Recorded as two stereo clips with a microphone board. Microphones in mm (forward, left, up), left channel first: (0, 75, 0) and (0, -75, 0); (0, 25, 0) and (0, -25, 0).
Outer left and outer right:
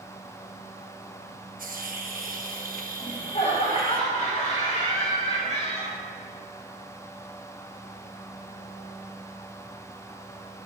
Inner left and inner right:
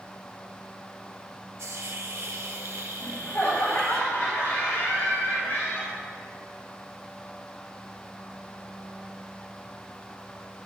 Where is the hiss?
70° right (ahead or behind), 0.9 m.